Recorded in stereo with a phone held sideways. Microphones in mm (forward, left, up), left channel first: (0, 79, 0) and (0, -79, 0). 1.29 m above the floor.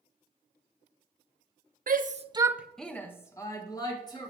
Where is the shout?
65° right (ahead or behind), 0.6 m; by 4.3 s 25° left (ahead or behind), 2 m.